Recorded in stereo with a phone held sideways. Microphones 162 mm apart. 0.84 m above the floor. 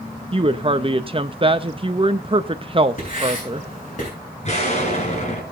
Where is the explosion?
45° left (ahead or behind), 4 m.